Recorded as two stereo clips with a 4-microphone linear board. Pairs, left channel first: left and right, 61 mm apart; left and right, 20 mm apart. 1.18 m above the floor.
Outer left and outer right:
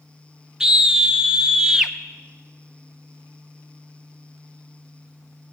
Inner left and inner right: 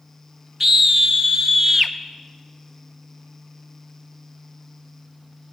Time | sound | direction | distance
0.6 | a scream | 10° right (ahead or behind) | 0.6 m